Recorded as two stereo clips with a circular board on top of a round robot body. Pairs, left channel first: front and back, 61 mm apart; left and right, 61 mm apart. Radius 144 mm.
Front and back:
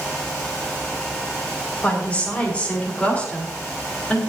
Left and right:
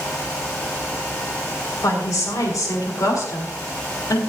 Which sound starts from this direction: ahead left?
A woman speaking, at 1.8 s.